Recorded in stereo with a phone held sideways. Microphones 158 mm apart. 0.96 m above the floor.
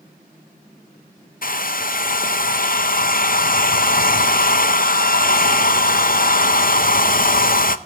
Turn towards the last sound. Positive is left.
turn(degrees=65)  # may be behind; listen again after turning